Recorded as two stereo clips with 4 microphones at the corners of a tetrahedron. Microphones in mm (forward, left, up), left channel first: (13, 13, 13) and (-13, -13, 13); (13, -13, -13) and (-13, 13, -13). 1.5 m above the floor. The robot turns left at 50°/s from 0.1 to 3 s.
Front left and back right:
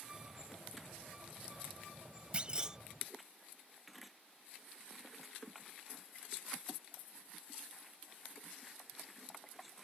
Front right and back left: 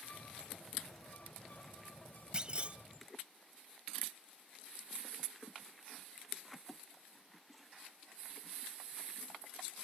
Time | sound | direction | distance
2.3 | a clunk | 175° right | ?